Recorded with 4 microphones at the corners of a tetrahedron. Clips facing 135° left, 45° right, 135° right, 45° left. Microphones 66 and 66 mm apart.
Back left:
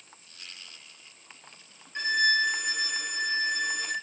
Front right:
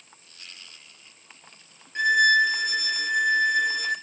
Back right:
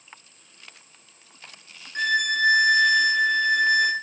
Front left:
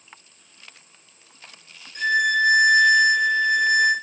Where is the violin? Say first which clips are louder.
Front right 7 dB, front left 3 dB; 115° right, 2 m.